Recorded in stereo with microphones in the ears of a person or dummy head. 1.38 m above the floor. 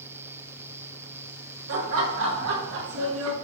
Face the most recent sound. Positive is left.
turn(degrees=-85)